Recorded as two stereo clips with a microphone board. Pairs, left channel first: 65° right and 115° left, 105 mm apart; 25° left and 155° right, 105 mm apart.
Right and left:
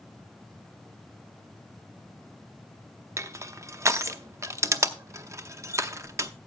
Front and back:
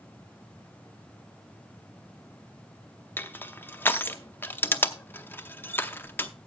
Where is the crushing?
75° left, 0.7 m.